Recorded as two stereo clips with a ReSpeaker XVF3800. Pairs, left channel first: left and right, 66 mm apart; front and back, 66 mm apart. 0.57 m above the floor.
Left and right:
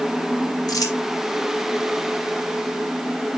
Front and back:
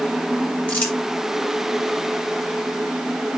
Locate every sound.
0.7 s crumpling: 70° left, 4 m